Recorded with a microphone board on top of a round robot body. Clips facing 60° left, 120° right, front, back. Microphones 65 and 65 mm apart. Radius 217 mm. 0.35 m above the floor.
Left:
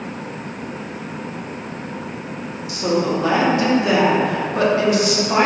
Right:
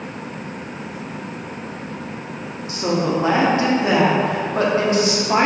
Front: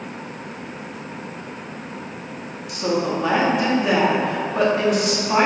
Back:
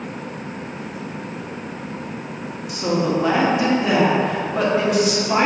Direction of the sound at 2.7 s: 90° right.